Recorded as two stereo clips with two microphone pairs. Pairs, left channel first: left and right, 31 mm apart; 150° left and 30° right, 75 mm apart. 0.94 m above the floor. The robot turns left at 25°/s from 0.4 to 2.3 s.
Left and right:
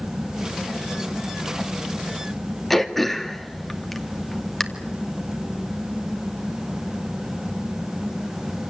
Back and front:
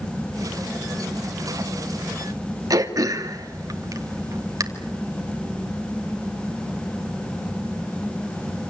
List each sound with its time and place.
2.7 s throat clearing: 5° left, 2 m